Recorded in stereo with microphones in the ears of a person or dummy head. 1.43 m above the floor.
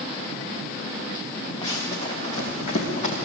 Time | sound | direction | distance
1.6 | running footsteps | 30° left (ahead or behind) | 7 m